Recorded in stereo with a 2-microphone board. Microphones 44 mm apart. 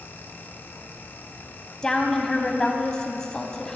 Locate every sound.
1.8 s a woman speaking: 15° left (ahead or behind), 1.1 m